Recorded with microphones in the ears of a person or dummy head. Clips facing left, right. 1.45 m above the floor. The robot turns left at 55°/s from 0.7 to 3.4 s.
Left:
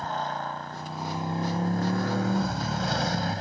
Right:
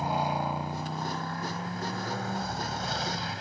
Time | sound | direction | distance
0.0 | a motorcycle | 170° right | ?